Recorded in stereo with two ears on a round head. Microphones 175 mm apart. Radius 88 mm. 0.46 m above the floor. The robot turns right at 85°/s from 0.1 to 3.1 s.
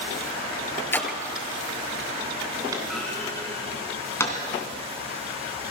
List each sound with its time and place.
0.9 s a splash: 15° left (ahead or behind), 1.9 m; by 1.5 s 35° right (ahead or behind), 1.9 m
2.7 s a clunk: 20° right (ahead or behind), 3 m; by 4.4 s 15° left (ahead or behind), 3 m